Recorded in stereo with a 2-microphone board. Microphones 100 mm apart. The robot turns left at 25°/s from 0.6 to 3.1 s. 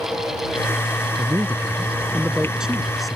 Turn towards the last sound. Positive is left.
turn(degrees=0)  # may be behind; listen again after turning